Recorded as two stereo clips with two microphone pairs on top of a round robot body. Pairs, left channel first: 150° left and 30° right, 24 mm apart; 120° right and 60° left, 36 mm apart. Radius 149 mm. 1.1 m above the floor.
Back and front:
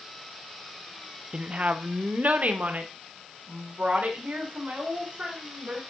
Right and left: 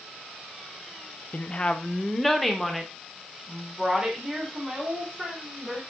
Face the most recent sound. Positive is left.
turn(degrees=-15)